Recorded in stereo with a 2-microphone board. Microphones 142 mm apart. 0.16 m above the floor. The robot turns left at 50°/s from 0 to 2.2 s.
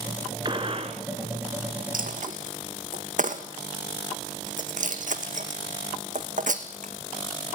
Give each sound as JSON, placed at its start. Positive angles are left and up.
{"t": 0.5, "sound": "a gunshot", "side_deg": -35, "distance_m": 1.5}
{"t": 1.9, "sound": "a dropped coin", "side_deg": -75, "distance_m": 1.3}